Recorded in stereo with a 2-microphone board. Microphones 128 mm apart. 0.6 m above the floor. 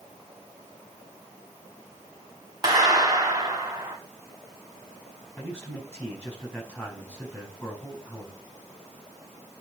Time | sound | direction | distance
2.6 | a clap | 30° right (ahead or behind) | 2.5 m
5.4 | a man speaking | 10° left (ahead or behind) | 5 m